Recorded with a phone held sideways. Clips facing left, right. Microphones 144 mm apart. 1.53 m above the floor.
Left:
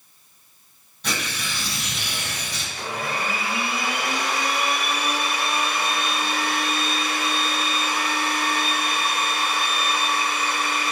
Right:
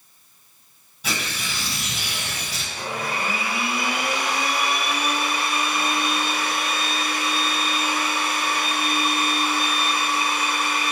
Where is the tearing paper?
5° right (ahead or behind), 1.5 m.